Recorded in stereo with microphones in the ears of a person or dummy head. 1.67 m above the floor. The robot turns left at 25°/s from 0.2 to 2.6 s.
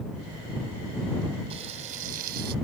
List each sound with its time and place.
1.5 s frying: 35° right (ahead or behind); by 2.5 s 60° right (ahead or behind)